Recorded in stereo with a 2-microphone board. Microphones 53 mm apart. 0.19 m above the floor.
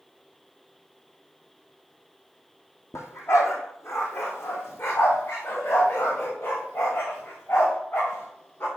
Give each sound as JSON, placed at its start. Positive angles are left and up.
{"t": 2.9, "sound": "a dog barking", "side_deg": 65, "distance_m": 1.8}